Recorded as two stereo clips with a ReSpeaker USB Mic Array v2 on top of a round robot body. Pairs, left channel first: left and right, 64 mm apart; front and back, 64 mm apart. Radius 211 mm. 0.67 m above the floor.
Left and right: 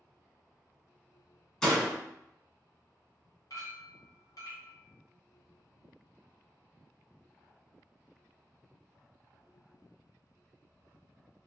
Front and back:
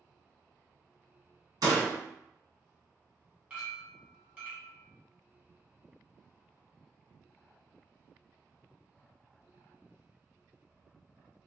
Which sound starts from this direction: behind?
A door slam, at 1.6 s.